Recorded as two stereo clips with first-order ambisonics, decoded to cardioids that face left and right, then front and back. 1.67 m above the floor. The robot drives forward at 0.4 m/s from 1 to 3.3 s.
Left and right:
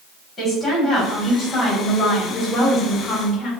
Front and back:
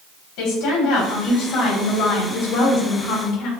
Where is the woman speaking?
10° left, 1.8 m; by 3.5 s 15° left, 1.0 m.